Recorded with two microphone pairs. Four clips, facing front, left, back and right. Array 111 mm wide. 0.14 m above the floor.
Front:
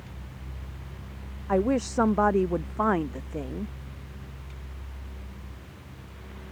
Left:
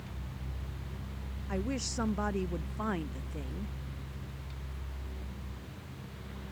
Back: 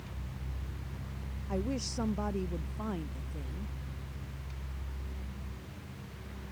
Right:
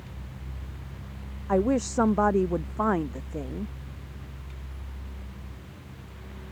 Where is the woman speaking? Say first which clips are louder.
Right 12 dB, front 11 dB; 45° right; by 3.7 s 30° right.